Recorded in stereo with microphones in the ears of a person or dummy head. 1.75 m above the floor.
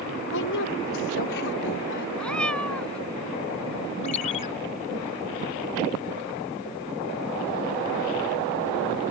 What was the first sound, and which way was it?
A woman speaking, 70° left (ahead or behind).